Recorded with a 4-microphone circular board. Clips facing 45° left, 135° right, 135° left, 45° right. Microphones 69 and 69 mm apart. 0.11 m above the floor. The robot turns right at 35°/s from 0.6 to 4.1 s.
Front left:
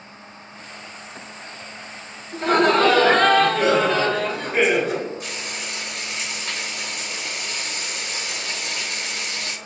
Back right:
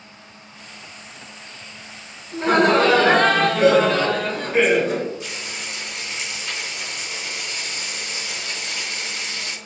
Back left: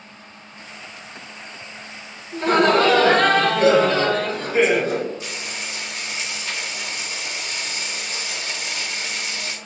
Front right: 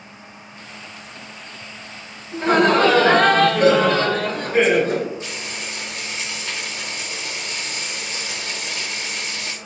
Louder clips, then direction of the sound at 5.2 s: Even, front right 1 dB; 15° left.